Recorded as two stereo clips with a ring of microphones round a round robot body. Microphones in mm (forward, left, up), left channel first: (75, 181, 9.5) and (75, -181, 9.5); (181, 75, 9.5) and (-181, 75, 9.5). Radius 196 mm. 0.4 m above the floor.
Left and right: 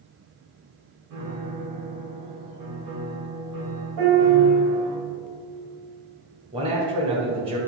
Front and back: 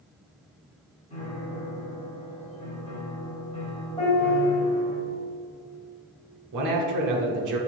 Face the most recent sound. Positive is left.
turn(degrees=-160)